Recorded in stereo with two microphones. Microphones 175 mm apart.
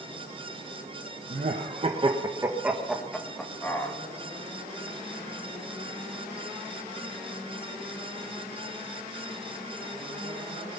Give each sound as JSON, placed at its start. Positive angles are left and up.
{"t": 1.3, "sound": "laughter", "side_deg": -55, "distance_m": 1.2}